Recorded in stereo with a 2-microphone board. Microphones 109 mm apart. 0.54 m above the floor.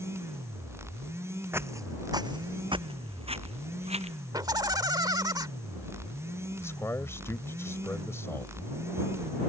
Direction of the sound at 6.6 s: 25° left (ahead or behind).